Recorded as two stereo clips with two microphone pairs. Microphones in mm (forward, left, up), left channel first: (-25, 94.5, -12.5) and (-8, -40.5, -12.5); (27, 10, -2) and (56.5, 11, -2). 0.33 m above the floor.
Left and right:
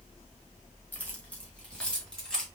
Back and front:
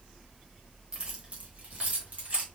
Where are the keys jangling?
30° left, 1.0 m; by 2.5 s 15° left, 1.8 m.